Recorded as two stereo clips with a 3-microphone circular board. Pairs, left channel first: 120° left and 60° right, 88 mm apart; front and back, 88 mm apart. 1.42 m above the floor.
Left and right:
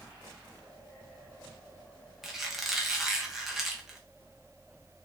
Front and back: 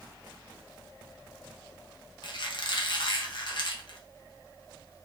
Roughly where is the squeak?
Ahead left.